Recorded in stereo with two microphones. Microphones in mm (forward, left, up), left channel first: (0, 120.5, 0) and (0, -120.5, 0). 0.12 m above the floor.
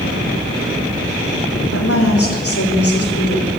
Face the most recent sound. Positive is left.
turn(degrees=75)  # may be behind; listen again after turning